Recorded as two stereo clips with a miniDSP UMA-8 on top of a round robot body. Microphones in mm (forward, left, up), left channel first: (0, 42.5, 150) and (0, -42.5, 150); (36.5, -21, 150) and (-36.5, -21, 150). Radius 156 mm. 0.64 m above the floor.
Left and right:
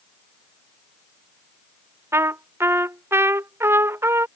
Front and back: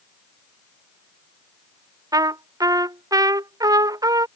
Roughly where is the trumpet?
Behind right.